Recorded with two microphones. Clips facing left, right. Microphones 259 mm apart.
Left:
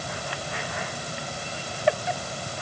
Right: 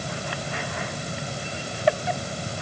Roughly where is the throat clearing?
I don't hear throat clearing.